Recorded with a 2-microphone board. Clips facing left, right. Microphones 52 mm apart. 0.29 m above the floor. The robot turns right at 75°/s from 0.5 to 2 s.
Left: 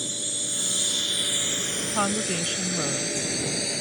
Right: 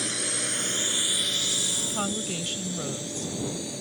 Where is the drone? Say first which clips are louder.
Right 3 dB; 65° right (ahead or behind); by 3.8 s 75° left (ahead or behind).